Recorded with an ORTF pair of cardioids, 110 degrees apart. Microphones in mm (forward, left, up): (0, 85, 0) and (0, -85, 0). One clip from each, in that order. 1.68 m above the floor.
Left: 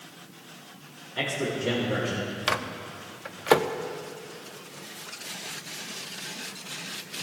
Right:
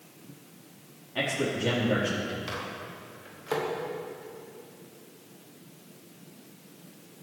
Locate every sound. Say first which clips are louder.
1.1 s a man speaking: even; 45° right, 4.5 m; by 2.4 s 60° right, 4.5 m
2.5 s a microwave: left 7 dB; 65° left, 0.8 m